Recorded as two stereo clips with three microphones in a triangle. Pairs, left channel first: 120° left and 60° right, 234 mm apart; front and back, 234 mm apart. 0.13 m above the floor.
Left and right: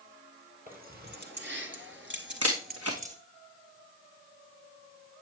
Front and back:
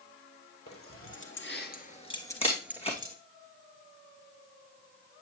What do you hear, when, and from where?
0.7 s keys jangling: 10° right, 2.5 m; by 3.2 s 115° right, 2.0 m
2.4 s a camera shutter: 65° right, 2.5 m